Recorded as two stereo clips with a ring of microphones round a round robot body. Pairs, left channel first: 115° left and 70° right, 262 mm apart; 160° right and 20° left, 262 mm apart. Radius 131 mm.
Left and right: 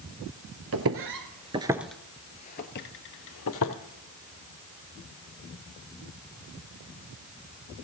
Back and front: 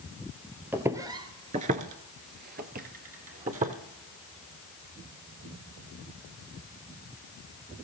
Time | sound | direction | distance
0.7 | footsteps | 60° right | 1.0 m